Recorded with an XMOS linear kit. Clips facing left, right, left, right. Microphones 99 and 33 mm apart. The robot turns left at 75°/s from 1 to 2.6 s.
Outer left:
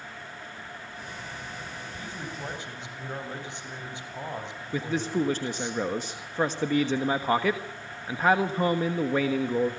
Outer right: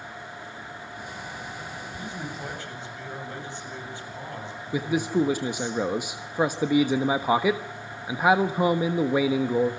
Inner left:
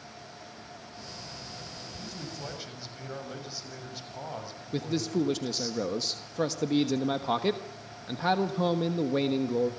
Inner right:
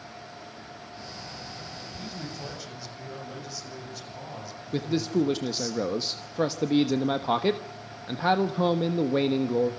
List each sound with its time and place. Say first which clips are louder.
2.0 s a man speaking: outer right 2 dB, inner right 2 dB; 150° right, 7 m; by 5.7 s 160° left, 7 m
4.7 s a man speaking: outer right 3 dB, inner right 3 dB; 10° right (ahead or behind), 1.2 m